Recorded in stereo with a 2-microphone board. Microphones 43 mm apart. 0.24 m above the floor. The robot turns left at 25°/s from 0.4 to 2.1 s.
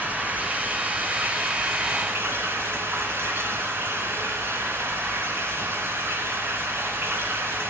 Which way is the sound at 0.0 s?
45° right.